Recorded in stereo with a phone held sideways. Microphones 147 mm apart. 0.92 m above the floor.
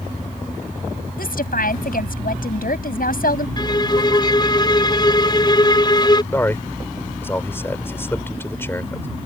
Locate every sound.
1.2 s a woman speaking: 80° left
3.6 s a violin: 30° left (ahead or behind)
6.3 s a man speaking: 15° left (ahead or behind)